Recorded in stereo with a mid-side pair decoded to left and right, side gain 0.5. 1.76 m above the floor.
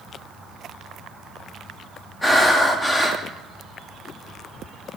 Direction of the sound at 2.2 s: 20° left.